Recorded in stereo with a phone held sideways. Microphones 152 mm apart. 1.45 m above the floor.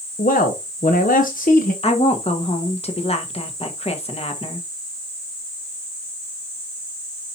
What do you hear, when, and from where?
0.2 s a man speaking: 65° left (ahead or behind), 0.9 m
1.8 s a woman speaking: 40° left (ahead or behind), 1.3 m